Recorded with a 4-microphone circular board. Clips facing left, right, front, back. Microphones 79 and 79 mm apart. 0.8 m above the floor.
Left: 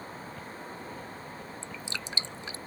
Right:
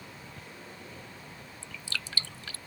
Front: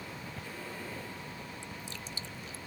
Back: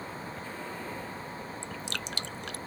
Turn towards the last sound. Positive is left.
turn(degrees=160)